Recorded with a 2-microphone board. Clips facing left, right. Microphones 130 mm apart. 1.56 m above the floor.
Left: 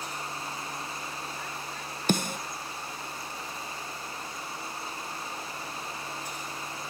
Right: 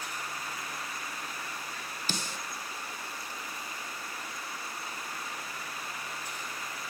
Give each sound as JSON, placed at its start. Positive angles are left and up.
{"t": 2.1, "sound": "a snare drum", "side_deg": 55, "distance_m": 0.9}